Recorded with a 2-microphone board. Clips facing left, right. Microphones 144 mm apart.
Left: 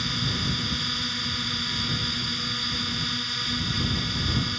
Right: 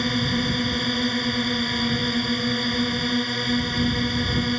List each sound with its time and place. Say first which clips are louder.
0.0 s a drone: right 8 dB; 55° right (ahead or behind)